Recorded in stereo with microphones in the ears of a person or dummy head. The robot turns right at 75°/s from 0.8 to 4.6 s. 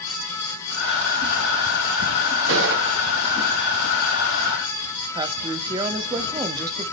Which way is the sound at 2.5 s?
70° right (ahead or behind).